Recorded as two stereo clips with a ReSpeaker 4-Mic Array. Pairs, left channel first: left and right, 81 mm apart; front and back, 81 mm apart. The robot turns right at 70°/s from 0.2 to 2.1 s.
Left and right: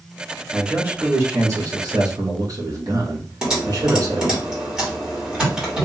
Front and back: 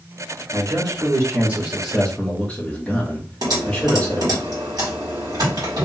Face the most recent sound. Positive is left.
turn(degrees=-170)